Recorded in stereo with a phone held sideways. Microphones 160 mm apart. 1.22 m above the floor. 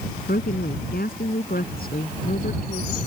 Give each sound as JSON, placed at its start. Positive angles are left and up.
{"t": 0.3, "sound": "a woman speaking", "side_deg": 75}